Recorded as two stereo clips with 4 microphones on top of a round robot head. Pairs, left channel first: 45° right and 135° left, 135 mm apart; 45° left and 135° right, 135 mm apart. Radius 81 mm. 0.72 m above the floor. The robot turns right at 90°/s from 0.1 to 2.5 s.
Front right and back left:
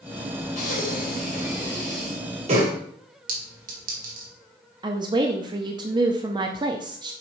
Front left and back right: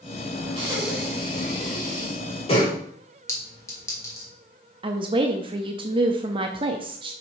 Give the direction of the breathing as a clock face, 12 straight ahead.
3 o'clock.